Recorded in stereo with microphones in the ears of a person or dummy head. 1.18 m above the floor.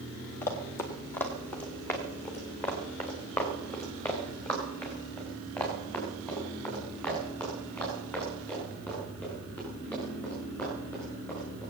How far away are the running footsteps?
About 1.4 m.